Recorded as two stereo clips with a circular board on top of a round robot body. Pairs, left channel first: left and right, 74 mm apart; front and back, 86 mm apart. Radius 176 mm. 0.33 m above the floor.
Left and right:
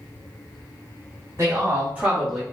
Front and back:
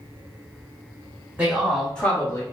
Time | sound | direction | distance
1.4 | a man speaking | 120° right | 1.6 m